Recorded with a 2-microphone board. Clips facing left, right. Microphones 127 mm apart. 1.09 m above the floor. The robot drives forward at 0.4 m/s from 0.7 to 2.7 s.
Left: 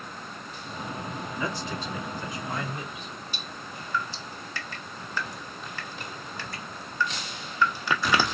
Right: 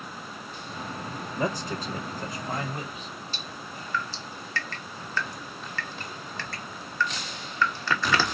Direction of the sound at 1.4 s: 50° right (ahead or behind).